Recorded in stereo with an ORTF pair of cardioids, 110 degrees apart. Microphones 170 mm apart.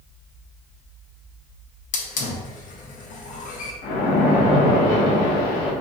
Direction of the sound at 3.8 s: 70° left.